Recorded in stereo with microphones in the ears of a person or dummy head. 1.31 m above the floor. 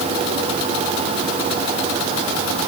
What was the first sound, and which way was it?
Only background noise.